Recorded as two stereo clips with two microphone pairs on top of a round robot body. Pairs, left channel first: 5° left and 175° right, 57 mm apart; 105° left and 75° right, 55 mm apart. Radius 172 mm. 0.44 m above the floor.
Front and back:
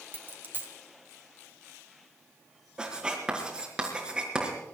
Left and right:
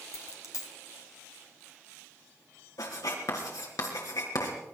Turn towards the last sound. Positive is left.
turn(degrees=110)